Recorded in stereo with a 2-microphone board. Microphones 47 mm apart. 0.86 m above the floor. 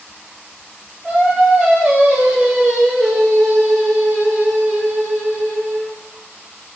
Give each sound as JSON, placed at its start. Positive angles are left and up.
{"t": 1.0, "sound": "singing", "side_deg": 5, "distance_m": 1.5}